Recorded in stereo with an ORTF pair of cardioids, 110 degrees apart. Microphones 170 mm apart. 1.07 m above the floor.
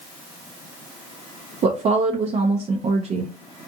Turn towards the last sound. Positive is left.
turn(degrees=-40)